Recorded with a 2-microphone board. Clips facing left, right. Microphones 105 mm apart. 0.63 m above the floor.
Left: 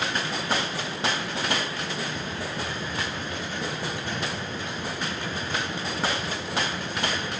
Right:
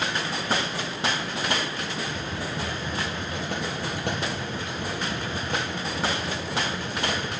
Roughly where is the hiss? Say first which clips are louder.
Even; right.